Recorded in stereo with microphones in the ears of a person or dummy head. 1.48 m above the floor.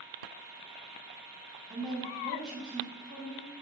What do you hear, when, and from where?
1.7 s a woman speaking: 5° right (ahead or behind), 1.1 m